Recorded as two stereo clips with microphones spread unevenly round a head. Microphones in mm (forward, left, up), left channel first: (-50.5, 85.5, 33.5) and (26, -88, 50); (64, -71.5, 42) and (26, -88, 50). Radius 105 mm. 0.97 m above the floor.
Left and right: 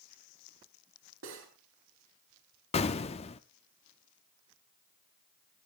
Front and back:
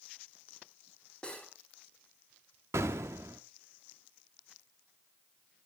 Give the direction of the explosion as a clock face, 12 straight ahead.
6 o'clock.